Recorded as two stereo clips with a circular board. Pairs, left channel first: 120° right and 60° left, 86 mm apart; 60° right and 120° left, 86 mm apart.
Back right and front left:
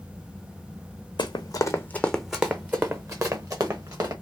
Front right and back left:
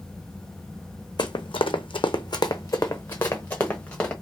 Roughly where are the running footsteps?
Right.